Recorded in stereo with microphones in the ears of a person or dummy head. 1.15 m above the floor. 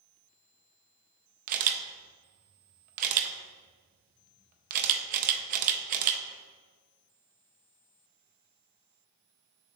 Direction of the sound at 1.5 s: 45° right (ahead or behind).